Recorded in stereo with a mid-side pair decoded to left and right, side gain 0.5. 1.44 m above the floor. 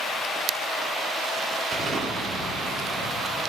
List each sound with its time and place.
1.7 s an explosion: 55° right, 2 m